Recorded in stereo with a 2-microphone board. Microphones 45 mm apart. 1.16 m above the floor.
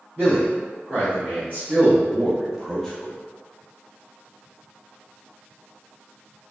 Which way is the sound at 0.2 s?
55° right (ahead or behind).